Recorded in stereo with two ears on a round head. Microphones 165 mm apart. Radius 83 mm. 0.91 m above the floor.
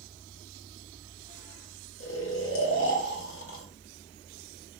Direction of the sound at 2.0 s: 80° left.